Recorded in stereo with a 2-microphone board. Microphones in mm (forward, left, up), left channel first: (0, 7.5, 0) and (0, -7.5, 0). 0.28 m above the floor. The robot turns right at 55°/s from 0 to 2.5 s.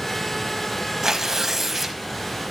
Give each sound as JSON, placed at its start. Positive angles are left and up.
{"t": 1.0, "sound": "tearing paper", "azimuth_deg": -45, "distance_m": 1.1}